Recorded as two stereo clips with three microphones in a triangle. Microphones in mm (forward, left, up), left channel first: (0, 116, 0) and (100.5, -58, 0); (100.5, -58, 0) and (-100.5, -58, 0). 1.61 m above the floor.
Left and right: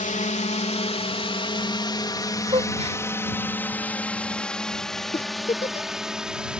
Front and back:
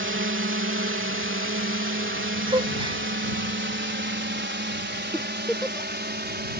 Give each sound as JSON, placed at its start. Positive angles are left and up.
{"t": 0.0, "sound": "a drone", "azimuth_deg": 170}
{"t": 2.5, "sound": "a gasp", "azimuth_deg": -115}
{"t": 5.1, "sound": "a giggle", "azimuth_deg": 85}